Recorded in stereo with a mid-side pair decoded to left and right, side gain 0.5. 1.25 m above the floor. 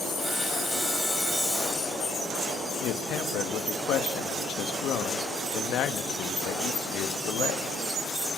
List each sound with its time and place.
0.2 s sawing: 10° right, 6 m
2.8 s a man speaking: 70° left, 1.3 m